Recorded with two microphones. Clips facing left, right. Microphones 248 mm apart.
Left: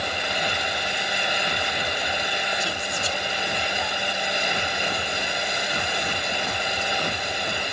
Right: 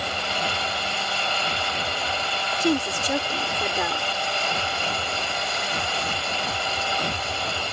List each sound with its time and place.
2.6 s a woman speaking: 70° right (ahead or behind)